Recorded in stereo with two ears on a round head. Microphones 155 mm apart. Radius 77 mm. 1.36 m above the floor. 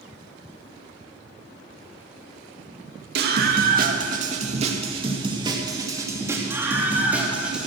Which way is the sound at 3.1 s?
60° right (ahead or behind).